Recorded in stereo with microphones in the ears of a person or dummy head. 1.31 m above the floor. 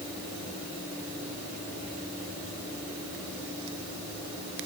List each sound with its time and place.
Only background noise.